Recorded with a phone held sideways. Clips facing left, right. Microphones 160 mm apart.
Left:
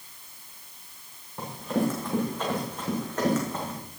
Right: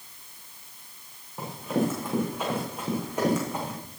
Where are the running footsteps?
5° right (ahead or behind), 6.5 m; by 3.7 s 15° right (ahead or behind), 5.5 m.